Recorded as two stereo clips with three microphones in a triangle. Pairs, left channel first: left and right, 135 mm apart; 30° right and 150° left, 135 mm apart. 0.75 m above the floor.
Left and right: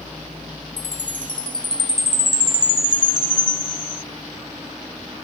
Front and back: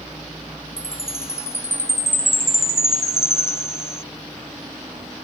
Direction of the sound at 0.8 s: 40° left.